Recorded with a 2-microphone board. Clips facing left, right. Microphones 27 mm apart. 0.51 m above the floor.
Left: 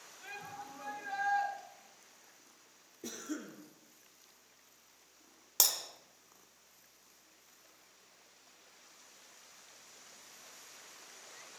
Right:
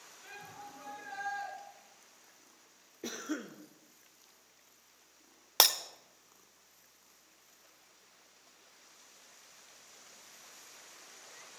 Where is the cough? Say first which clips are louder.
Right 3 dB; 30° right (ahead or behind), 0.8 m.